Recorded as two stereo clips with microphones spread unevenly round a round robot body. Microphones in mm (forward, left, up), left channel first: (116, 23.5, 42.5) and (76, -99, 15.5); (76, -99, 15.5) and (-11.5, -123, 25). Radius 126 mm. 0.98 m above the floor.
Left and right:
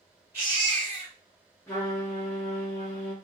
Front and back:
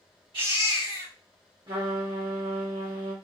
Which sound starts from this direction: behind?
A baby crying, at 0.3 s.